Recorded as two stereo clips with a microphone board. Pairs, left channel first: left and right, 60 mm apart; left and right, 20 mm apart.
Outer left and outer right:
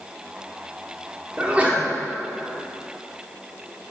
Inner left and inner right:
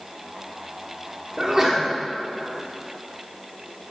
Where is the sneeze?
20° right (ahead or behind), 1.0 m.